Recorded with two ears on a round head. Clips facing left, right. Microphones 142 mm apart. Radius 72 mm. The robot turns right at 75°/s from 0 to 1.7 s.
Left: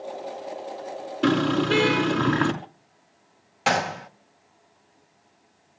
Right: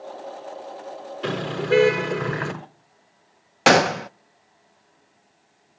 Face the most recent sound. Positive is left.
turn(degrees=-65)  # may be behind; listen again after turning